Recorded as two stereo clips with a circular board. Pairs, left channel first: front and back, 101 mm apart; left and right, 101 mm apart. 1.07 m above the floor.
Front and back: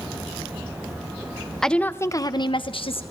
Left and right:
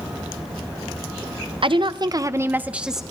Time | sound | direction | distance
1.6 | a woman speaking | 85° right | 0.9 m